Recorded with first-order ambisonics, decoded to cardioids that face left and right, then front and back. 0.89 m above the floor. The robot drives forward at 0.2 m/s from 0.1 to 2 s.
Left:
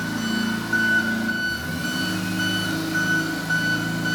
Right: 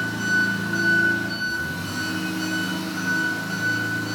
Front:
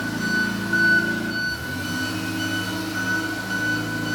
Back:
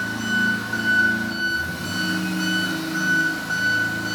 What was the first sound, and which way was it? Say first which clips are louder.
An engine running: right 5 dB, back 1 dB; 75° left.